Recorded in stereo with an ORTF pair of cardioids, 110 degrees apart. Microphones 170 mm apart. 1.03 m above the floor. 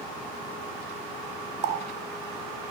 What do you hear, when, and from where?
1.6 s a running tap: 45° right, 0.8 m